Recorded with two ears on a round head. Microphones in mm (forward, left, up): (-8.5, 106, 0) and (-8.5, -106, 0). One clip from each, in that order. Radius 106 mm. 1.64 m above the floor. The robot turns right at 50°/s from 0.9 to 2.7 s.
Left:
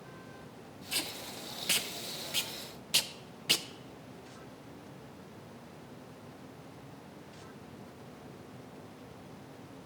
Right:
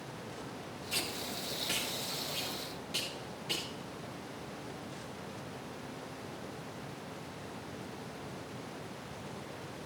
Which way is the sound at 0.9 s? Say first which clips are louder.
Even; 15° left (ahead or behind).